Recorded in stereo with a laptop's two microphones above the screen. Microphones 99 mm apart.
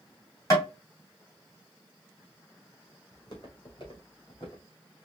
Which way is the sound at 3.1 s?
45° left (ahead or behind).